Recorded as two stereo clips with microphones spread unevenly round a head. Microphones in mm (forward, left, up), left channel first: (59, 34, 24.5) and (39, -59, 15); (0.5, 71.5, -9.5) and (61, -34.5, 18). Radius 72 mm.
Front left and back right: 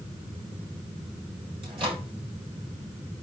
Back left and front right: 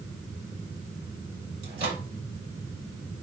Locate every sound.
1.6 s a microwave: 65° right, 4.5 m